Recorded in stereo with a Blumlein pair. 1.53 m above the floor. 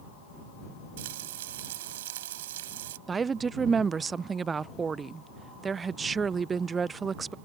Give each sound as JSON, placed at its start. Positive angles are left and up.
{"t": 1.0, "sound": "frying", "azimuth_deg": -55}
{"t": 3.1, "sound": "a woman speaking", "azimuth_deg": -15}